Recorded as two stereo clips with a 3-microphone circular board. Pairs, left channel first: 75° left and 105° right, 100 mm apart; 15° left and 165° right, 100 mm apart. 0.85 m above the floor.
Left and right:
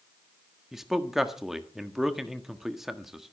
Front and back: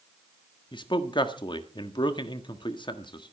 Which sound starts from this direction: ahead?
A man speaking, at 0.7 s.